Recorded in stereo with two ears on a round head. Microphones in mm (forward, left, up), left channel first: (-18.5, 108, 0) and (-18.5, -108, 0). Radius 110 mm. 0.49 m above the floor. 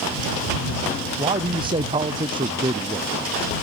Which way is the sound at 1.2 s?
20° right (ahead or behind).